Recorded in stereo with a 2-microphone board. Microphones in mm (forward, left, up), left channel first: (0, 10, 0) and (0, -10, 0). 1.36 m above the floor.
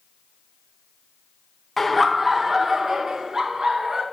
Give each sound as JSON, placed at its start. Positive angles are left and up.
{"t": 1.8, "sound": "laughter", "side_deg": 10, "distance_m": 0.6}